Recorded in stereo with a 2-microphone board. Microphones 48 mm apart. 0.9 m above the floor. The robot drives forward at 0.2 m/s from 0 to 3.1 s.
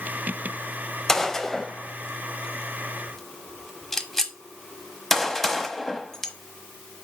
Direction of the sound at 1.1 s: 10° left (ahead or behind).